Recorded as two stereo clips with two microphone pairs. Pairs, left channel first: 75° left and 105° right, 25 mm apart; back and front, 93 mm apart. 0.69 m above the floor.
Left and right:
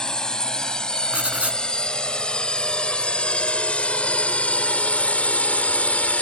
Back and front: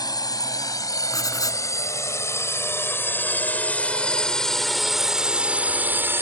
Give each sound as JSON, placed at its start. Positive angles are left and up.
{"t": 0.0, "sound": "a drone", "azimuth_deg": 135}
{"t": 1.1, "sound": "writing", "azimuth_deg": -130}